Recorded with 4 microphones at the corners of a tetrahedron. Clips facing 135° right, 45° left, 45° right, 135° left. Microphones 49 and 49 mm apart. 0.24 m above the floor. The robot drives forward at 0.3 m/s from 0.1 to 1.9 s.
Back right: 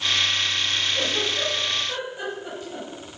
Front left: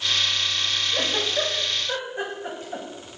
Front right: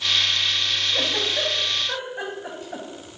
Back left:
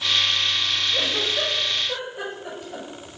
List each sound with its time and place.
0.9 s a giggle: 5° right, 3.5 m